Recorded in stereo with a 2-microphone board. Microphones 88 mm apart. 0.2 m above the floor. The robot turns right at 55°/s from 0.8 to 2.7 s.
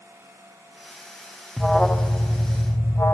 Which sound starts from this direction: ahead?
An alarm, at 1.6 s.